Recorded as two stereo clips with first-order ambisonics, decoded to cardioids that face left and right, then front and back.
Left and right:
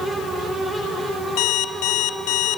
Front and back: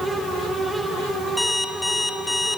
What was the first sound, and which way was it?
An alarm clock, 85° left.